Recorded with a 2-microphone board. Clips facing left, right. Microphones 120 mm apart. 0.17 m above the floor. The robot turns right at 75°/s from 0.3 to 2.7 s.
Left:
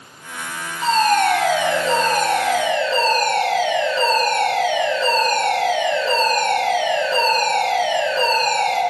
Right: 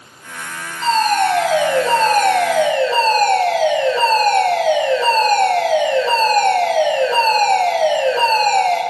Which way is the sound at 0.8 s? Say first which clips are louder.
Right 1 dB; 170° left.